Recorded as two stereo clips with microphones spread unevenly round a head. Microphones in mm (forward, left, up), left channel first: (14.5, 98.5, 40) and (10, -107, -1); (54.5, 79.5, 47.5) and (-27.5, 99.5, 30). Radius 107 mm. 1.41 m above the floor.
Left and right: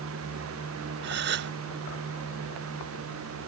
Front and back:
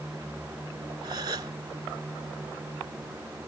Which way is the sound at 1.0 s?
130° right.